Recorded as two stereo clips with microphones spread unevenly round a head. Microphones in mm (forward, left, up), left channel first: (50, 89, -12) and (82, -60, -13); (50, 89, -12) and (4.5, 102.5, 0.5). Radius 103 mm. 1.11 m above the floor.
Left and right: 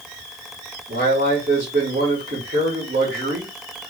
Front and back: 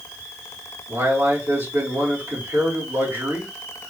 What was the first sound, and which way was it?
A man speaking, 135° right.